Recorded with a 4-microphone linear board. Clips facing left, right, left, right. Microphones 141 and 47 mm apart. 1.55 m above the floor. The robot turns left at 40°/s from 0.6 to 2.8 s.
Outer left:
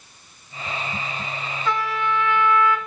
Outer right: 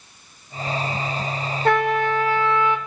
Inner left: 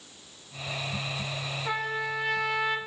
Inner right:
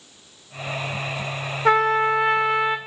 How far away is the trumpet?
About 1.0 m.